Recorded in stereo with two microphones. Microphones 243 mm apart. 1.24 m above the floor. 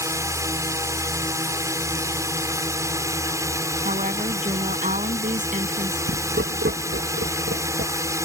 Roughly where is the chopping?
No chopping in this recording.